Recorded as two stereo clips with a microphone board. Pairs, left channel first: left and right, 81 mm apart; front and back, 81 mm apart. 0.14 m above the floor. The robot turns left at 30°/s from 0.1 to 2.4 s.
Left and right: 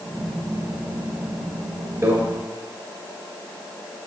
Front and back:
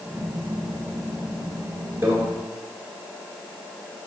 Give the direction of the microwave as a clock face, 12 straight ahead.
4 o'clock.